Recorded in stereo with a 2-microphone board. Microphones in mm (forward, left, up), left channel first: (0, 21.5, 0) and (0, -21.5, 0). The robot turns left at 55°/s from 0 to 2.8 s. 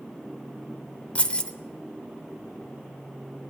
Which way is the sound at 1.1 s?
30° left (ahead or behind).